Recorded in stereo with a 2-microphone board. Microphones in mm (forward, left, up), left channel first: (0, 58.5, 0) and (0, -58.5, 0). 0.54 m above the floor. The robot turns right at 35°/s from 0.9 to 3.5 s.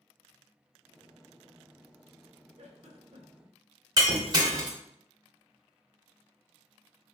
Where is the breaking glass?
30° right (ahead or behind), 0.9 m.